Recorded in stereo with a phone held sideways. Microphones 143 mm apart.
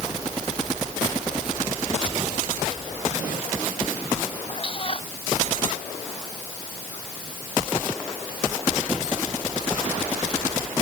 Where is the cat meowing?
40° left (ahead or behind).